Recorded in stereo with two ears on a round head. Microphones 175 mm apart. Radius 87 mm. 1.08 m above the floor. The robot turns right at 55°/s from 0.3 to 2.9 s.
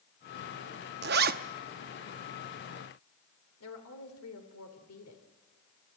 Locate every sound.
1.0 s a zipper: 55° right (ahead or behind), 0.7 m; by 1.4 s 45° right (ahead or behind), 0.7 m
3.6 s a woman speaking: 90° left, 3 m